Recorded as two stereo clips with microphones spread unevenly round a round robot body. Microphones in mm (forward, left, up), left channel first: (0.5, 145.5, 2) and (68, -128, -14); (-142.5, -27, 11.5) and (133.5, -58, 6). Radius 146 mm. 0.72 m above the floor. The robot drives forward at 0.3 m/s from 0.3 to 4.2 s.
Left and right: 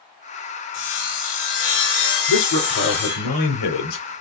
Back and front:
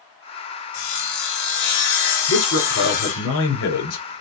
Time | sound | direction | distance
0.7 | sawing | 155° left | 2 m
2.3 | a man speaking | 125° left | 3 m